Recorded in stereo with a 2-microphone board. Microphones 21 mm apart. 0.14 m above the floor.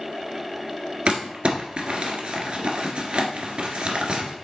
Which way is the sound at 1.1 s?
55° right (ahead or behind).